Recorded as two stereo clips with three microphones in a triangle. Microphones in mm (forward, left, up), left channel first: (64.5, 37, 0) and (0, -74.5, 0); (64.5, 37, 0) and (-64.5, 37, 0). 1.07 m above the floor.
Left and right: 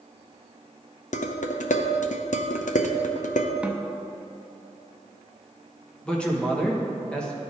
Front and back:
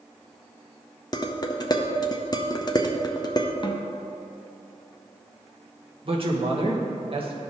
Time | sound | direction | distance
1.1 | dishes clattering | 60° left | 0.6 m
3.6 | a snare drum | 40° right | 0.5 m
6.0 | a man speaking | 140° left | 1.2 m